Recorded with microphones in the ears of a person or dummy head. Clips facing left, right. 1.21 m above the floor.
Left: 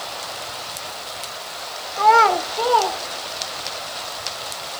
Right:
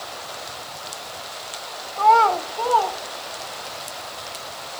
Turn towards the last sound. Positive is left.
turn(degrees=40)  # may be behind; listen again after turning